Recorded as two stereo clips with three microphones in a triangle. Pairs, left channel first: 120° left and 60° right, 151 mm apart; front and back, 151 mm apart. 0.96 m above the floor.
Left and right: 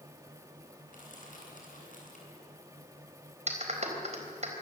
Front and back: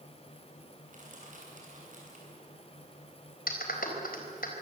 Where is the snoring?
No snoring in this recording.